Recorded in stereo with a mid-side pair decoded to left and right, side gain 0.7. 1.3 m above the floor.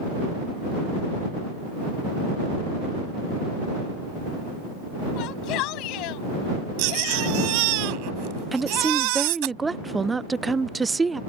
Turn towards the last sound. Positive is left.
turn(degrees=-15)